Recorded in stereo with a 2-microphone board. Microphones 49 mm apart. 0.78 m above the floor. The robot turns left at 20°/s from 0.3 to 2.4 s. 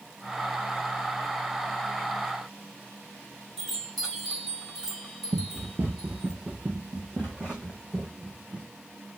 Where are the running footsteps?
55° right (ahead or behind), 1.2 m; by 8.7 s 15° right (ahead or behind), 4 m.